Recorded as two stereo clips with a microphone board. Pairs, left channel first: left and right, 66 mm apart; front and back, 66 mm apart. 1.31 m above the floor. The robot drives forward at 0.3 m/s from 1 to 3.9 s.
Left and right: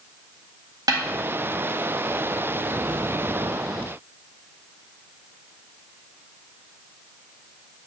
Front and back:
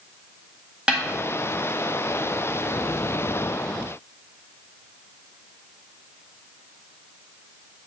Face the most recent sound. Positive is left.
turn(degrees=-130)